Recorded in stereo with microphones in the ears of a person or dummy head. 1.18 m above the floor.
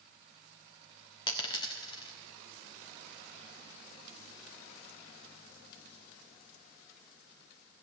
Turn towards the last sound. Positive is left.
turn(degrees=20)  # may be behind; listen again after turning